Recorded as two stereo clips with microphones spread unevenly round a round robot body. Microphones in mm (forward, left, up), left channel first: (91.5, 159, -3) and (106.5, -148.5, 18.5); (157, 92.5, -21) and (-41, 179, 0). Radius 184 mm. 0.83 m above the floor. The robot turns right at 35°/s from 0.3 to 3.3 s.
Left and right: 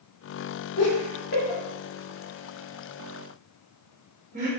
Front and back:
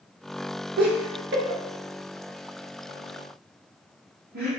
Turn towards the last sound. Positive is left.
turn(degrees=-155)